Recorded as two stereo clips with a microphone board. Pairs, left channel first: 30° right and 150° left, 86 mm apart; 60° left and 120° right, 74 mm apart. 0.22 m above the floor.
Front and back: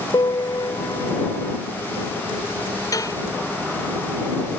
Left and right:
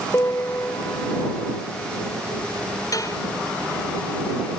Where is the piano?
5° left.